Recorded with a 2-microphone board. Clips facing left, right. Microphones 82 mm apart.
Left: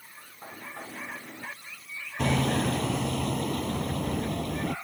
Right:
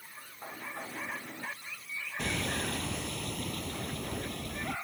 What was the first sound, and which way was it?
Hammering, 65° left (ahead or behind).